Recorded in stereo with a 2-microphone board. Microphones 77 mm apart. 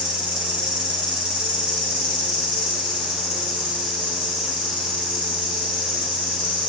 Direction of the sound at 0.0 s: 75° right (ahead or behind).